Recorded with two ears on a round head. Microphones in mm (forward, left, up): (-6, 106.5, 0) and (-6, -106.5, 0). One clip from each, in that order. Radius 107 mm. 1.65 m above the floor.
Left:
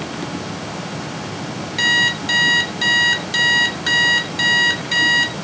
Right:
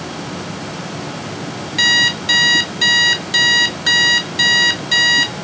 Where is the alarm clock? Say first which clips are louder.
Right 3 dB; 10° right (ahead or behind), 1.1 m.